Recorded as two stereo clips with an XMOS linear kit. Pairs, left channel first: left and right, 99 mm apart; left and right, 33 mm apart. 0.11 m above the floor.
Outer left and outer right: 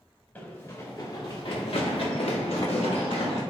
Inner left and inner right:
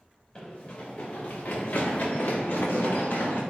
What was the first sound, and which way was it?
Running footsteps, 20° left (ahead or behind).